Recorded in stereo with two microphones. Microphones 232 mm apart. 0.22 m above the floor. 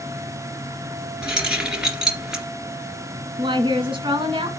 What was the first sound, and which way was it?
Keys jangling, 5° right (ahead or behind).